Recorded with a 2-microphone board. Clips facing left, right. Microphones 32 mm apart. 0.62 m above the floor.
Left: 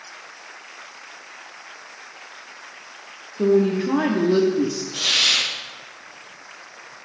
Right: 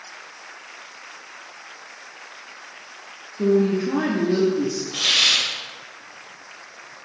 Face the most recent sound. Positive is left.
turn(degrees=-35)  # may be behind; listen again after turning